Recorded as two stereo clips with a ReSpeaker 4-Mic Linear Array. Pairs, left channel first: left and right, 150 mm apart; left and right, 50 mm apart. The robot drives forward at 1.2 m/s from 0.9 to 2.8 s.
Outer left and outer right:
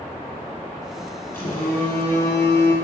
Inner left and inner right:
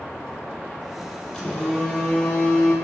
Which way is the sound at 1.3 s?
15° left (ahead or behind).